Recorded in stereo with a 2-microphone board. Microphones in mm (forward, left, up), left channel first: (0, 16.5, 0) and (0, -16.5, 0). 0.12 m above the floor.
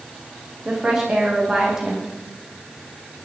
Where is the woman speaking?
15° right (ahead or behind), 5 m.